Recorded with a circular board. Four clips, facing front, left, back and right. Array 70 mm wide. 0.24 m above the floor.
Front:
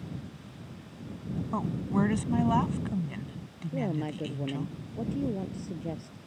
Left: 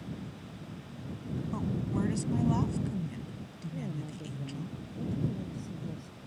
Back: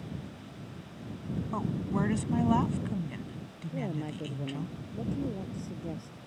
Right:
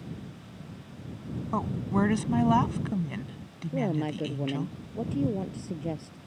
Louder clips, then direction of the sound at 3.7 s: Right 12 dB, front 4 dB; 75° right.